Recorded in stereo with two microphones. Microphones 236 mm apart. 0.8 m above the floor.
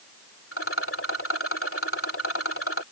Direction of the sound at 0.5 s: 70° left (ahead or behind).